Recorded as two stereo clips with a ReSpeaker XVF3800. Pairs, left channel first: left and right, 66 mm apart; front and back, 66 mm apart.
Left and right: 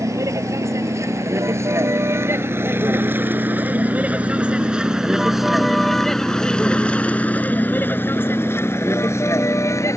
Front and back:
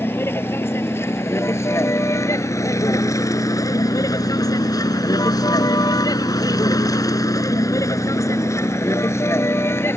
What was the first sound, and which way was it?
A vehicle, 55° right.